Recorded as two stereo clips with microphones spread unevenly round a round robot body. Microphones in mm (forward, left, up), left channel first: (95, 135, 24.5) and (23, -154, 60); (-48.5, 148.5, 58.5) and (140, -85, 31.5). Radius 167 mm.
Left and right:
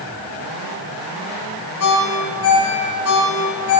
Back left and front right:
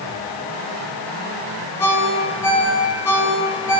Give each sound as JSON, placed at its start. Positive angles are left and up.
{"t": 1.8, "sound": "a ringtone", "azimuth_deg": 45, "distance_m": 1.9}